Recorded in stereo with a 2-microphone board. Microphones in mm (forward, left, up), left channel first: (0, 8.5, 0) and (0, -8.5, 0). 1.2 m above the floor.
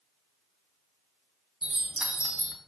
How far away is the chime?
About 0.7 m.